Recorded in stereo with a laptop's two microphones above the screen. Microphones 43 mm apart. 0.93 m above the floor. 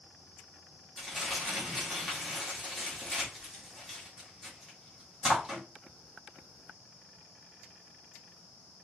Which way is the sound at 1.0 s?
15° right (ahead or behind).